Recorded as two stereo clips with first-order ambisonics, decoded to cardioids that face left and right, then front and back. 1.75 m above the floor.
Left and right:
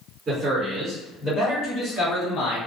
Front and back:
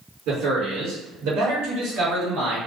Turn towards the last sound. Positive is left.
turn(degrees=130)